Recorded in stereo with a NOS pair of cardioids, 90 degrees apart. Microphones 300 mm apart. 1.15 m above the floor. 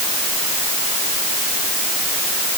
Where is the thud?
No thud in this recording.